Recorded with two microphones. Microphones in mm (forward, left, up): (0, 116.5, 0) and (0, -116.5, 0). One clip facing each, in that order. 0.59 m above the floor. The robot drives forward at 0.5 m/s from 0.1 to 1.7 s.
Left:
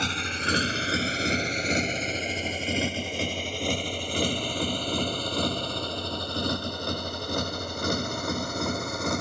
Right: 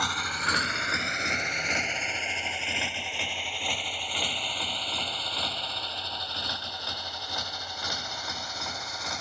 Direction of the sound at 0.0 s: 25° left (ahead or behind).